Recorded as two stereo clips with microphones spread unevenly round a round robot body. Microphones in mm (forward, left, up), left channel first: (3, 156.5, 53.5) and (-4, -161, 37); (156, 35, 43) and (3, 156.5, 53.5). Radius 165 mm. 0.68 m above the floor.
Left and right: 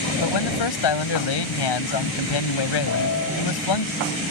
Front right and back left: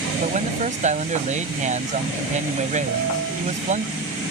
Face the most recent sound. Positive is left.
turn(degrees=135)